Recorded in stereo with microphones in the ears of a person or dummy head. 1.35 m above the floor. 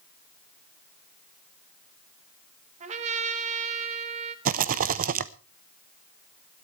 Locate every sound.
2.8 s a trumpet: 40° right (ahead or behind), 1.6 m
4.5 s a rattle: 40° right (ahead or behind), 0.7 m